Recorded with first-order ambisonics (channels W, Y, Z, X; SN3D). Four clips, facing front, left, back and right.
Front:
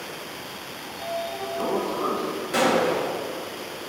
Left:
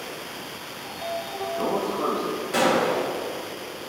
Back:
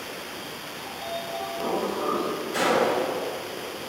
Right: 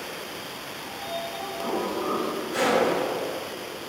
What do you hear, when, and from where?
0.8 s a sliding door: 55° left, 1.3 m
2.5 s a gunshot: 40° left, 1.6 m